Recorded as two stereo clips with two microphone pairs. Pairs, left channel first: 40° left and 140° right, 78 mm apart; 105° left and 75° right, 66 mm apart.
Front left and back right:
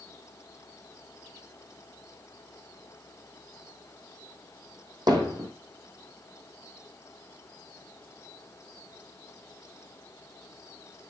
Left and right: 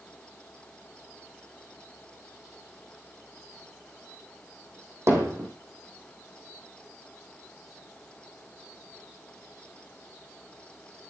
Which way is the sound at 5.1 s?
120° right.